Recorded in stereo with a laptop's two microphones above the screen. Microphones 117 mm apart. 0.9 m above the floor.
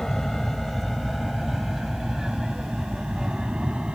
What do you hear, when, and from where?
0.0 s an aircraft: 5° left (ahead or behind); by 4.0 s 10° right (ahead or behind)